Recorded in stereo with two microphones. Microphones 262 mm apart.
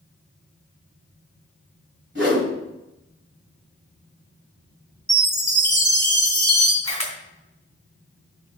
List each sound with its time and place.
2.1 s a whoosh: 45° right (ahead or behind), 1.7 m
5.1 s a chime: 40° right (ahead or behind), 3 m
6.8 s a camera shutter: 65° right (ahead or behind), 2.5 m